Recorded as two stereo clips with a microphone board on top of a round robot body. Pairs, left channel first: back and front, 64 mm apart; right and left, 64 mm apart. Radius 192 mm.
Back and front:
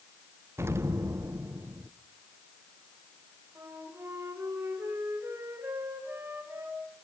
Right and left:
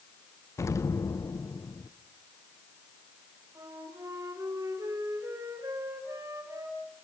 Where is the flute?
55° left, 5.5 m.